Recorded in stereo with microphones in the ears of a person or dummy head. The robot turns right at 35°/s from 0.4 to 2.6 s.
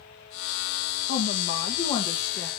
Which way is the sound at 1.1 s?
120° left.